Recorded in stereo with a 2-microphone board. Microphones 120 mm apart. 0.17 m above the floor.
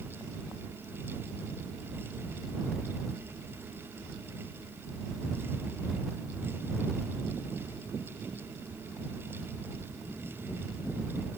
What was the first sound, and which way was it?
Only background noise.